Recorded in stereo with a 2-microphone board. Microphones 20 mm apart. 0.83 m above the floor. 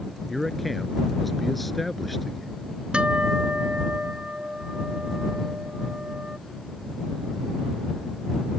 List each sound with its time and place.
0.3 s a man speaking: 15° left (ahead or behind)
2.9 s a guitar: 65° right (ahead or behind)